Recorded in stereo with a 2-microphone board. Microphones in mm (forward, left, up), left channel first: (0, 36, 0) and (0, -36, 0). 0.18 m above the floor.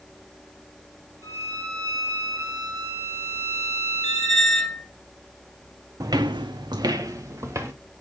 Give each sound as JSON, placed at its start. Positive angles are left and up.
{"t": 1.2, "sound": "a violin", "side_deg": -50, "distance_m": 3.0}
{"t": 4.0, "sound": "a squeak", "side_deg": 5, "distance_m": 0.7}
{"t": 6.0, "sound": "footsteps", "side_deg": -50, "distance_m": 0.9}